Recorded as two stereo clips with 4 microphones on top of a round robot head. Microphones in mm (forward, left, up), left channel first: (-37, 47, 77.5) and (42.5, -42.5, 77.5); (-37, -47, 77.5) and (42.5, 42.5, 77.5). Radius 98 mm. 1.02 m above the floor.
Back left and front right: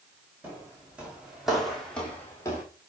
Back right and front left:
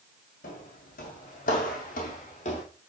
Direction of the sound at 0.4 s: 125° right.